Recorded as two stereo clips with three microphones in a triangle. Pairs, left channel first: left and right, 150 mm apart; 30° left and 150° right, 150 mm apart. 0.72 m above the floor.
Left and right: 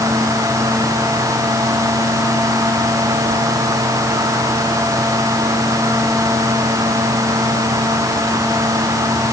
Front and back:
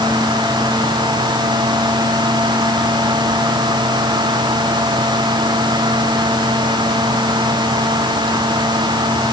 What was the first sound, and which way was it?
Only background noise.